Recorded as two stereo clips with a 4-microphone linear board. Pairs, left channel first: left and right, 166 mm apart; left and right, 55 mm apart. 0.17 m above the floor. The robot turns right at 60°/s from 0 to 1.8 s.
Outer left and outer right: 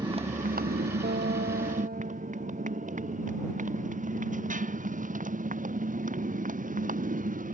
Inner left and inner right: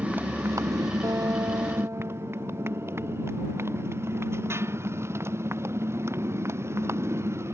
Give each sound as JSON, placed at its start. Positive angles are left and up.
{"t": 0.0, "sound": "a motorcycle", "side_deg": -25}
{"t": 1.0, "sound": "a guitar", "azimuth_deg": -105}